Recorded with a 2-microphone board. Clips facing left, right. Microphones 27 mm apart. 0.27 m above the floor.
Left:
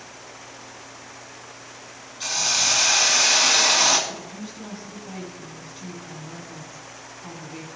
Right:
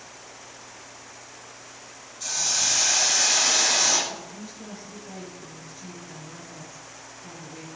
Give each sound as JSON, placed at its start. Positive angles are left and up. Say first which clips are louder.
{"t": 2.2, "sound": "a hiss", "louder": "left 4 dB", "side_deg": 60, "distance_m": 2.0}
{"t": 4.1, "sound": "a woman speaking", "louder": "left 2 dB", "side_deg": 55, "distance_m": 3.0}